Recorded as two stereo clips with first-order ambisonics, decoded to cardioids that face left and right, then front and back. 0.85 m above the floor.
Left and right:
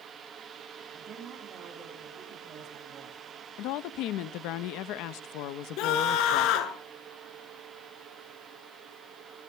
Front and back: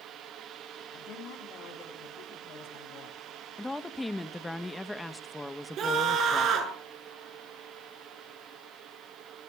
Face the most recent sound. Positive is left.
turn(degrees=125)